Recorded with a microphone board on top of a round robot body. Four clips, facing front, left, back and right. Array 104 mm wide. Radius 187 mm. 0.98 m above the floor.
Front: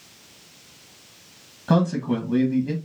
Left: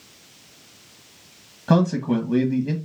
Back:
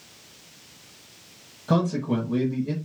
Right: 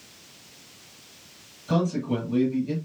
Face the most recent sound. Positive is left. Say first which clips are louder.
# left 5 dB, front 2 dB
turn(degrees=70)